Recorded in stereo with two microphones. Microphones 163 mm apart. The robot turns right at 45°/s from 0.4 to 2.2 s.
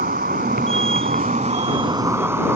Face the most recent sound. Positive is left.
turn(degrees=-15)